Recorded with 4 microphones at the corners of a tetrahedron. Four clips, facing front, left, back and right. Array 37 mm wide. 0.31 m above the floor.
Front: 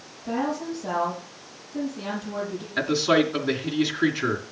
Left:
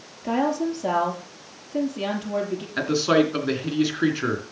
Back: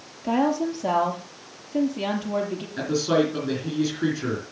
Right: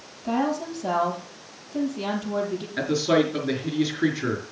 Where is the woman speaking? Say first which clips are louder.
Left 2 dB, back 5 dB; 130° left, 6.5 m.